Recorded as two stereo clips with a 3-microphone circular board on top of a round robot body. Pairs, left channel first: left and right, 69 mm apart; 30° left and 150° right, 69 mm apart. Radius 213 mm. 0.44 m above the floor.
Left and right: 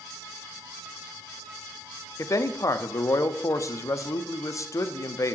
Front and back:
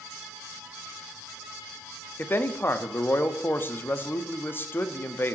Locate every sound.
2.2 s a man speaking: 80° left, 0.9 m